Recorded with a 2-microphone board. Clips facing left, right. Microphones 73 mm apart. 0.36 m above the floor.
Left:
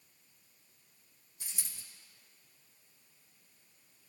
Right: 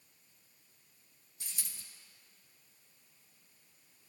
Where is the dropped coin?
5° left (ahead or behind), 3 m.